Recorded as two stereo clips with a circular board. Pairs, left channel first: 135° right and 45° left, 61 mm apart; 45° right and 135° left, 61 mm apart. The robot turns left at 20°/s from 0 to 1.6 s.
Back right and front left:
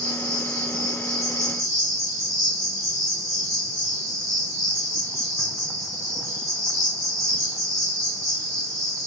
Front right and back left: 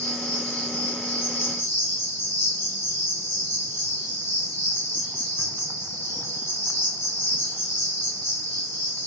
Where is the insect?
100° left, 2 m; by 9.1 s 65° left, 2 m.